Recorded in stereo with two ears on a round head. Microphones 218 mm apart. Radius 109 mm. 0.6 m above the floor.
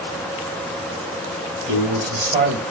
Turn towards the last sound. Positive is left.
turn(degrees=-40)  # may be behind; listen again after turning